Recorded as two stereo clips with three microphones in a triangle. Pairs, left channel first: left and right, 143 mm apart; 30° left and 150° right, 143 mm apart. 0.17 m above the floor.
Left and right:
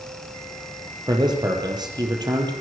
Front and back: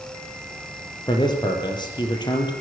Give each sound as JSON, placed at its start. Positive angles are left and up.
{"t": 1.1, "sound": "a man speaking", "azimuth_deg": -30, "distance_m": 4.5}